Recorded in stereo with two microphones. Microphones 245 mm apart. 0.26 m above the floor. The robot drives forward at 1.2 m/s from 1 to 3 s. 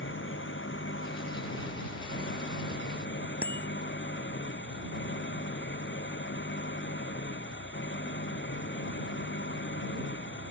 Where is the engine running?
55° left (ahead or behind); by 10.5 s 50° left (ahead or behind).